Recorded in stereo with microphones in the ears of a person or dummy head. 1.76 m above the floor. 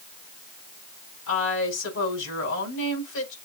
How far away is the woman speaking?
About 4.5 m.